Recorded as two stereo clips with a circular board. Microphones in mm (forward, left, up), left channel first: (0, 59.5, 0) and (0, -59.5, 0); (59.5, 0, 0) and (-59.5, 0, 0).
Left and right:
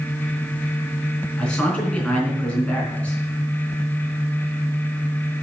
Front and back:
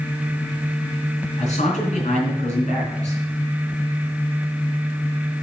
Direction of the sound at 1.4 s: 10° left.